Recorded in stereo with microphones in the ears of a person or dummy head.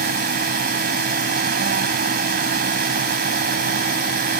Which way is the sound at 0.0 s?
55° right (ahead or behind).